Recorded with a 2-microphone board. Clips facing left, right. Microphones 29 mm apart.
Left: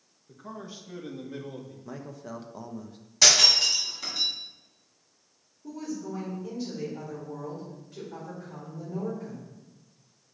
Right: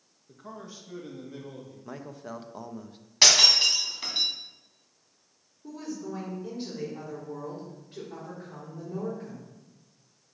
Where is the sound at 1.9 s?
20° right (ahead or behind), 0.7 m.